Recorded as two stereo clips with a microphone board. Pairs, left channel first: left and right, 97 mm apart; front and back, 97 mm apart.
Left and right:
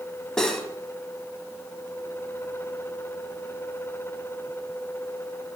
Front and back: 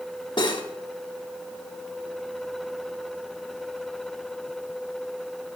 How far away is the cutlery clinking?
About 1.3 m.